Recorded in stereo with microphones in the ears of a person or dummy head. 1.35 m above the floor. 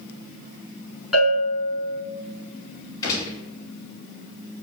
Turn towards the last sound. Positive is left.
turn(degrees=25)  # may be behind; listen again after turning